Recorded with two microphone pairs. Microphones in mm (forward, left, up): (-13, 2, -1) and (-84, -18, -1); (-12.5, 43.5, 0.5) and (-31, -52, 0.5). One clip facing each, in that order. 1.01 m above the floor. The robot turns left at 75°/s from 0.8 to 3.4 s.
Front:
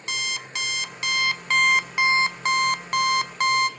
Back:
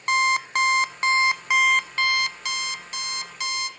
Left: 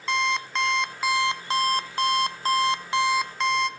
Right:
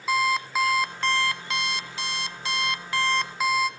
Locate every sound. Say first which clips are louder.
0.1 s an alarm clock: back 11 dB, right 2 dB; 175° left, 0.6 m; by 3.7 s 20° right, 0.6 m